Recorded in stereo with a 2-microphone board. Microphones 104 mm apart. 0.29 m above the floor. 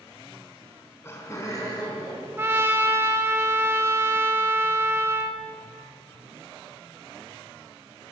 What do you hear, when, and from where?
0.6 s laughter: 15° left (ahead or behind), 3 m; by 2.3 s 40° left (ahead or behind), 4 m
2.4 s a trumpet: 25° right (ahead or behind), 0.9 m